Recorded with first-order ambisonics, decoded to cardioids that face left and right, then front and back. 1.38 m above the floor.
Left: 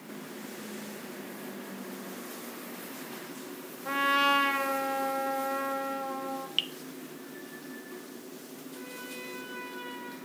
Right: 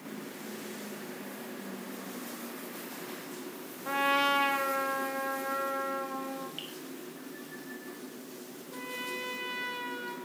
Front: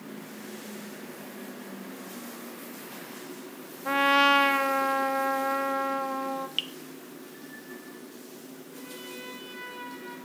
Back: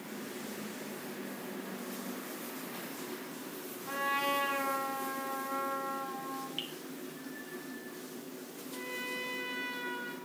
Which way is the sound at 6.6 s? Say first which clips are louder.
Left 11 dB, front 9 dB; 50° left.